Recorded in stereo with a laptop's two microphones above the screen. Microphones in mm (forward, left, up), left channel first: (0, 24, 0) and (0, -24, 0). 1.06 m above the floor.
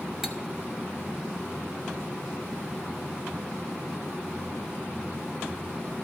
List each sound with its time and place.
0.2 s cutlery clinking: 10° right (ahead or behind), 0.8 m